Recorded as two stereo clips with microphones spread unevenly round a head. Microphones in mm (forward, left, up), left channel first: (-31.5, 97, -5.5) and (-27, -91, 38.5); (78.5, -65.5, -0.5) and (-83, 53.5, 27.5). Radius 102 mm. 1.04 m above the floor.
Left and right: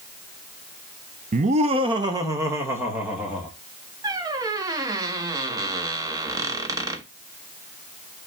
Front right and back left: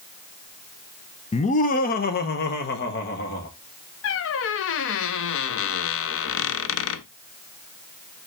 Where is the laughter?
45° right, 0.6 m; by 3.5 s straight ahead, 2 m.